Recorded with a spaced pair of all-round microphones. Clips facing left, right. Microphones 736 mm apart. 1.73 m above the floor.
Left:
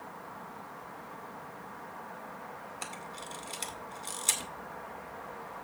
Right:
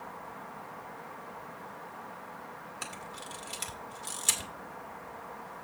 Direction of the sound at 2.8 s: 45° right (ahead or behind).